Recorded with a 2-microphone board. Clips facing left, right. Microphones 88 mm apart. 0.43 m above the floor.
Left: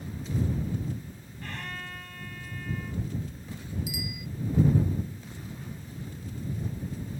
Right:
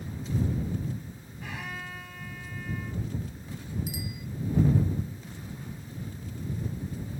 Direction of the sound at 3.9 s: 40° right (ahead or behind).